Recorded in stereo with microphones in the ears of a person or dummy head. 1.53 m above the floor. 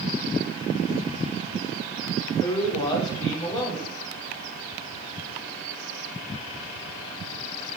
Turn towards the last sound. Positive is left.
turn(degrees=20)  # may be behind; listen again after turning